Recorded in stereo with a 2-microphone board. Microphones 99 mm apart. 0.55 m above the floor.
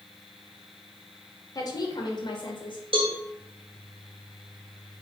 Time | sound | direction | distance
1.6 | a woman speaking | 40° left (ahead or behind) | 2 m
2.9 | a cowbell | 70° right (ahead or behind) | 1.6 m